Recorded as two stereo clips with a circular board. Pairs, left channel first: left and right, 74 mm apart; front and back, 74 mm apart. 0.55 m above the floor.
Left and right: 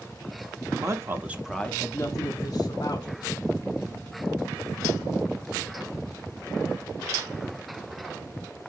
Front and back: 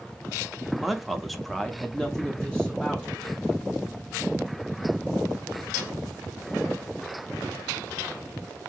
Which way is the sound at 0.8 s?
95° right.